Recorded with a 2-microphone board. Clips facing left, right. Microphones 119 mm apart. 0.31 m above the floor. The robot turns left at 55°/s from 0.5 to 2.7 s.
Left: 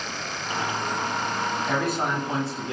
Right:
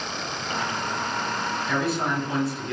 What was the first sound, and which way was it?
A man speaking, 85° left.